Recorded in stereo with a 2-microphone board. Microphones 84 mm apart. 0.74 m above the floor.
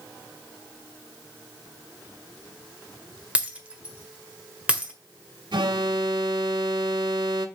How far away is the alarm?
About 1.5 m.